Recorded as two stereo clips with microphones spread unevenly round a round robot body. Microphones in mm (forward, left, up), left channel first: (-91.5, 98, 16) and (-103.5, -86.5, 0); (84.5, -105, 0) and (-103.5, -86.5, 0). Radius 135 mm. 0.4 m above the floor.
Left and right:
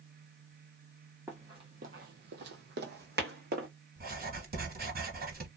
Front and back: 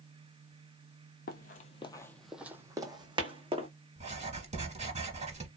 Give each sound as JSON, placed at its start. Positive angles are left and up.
{"t": 1.3, "sound": "running footsteps", "azimuth_deg": -10, "distance_m": 0.5}
{"t": 4.0, "sound": "writing", "azimuth_deg": -130, "distance_m": 1.3}